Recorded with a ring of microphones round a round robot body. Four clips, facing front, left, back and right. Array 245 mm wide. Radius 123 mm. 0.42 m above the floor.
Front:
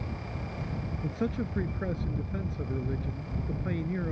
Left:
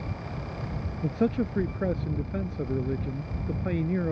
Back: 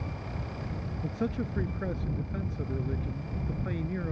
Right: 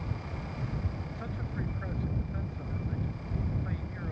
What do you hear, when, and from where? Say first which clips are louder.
1.0 s a man speaking: left 14 dB, even; 80° left